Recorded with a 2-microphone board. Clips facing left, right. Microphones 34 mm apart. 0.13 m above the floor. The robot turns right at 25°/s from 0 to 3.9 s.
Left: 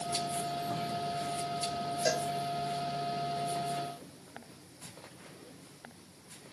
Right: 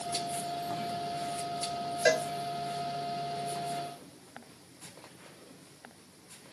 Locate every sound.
2.0 s a cowbell: 50° right (ahead or behind), 0.5 m